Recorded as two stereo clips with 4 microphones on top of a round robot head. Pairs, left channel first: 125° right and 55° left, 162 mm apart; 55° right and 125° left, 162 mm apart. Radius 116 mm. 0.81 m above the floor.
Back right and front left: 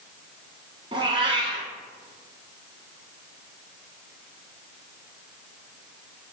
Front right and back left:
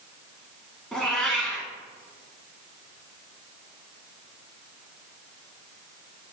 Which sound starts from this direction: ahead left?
A cat meowing, at 0.9 s.